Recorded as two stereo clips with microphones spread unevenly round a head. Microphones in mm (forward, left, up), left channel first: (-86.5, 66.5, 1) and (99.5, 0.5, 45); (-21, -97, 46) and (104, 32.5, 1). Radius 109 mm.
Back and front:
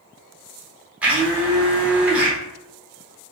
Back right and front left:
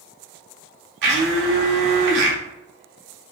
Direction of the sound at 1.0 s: 45° left.